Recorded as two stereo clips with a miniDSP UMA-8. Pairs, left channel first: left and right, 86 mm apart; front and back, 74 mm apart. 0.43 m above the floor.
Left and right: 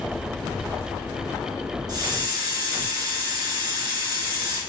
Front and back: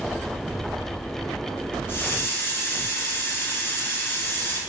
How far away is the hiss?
About 0.9 m.